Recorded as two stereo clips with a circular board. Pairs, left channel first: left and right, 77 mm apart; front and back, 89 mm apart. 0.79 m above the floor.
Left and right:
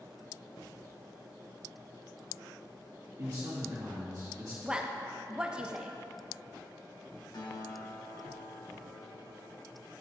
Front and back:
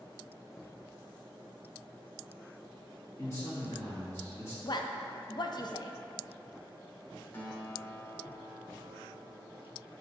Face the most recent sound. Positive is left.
turn(degrees=65)